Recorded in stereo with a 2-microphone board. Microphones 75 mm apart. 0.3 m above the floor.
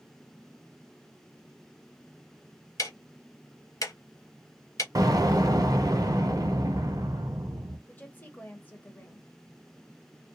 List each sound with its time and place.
2.8 s ticking: 45° left (ahead or behind), 0.7 m
5.0 s an explosion: 55° right (ahead or behind), 0.8 m
7.9 s a woman speaking: 25° left (ahead or behind), 0.9 m